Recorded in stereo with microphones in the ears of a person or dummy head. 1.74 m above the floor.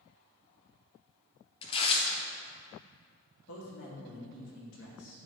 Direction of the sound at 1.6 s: 30° left (ahead or behind).